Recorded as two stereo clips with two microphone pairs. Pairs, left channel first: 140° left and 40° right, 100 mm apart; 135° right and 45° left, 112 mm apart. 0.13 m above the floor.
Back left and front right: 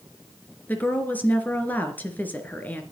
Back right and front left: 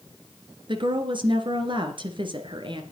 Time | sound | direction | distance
0.7 | a woman speaking | 70° left | 2.5 m